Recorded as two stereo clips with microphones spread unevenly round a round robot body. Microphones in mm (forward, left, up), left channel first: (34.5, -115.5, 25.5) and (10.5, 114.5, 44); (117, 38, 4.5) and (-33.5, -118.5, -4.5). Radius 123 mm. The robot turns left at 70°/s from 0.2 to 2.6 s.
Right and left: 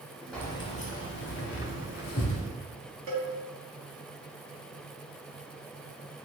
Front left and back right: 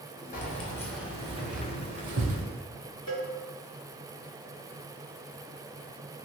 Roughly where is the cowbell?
Left.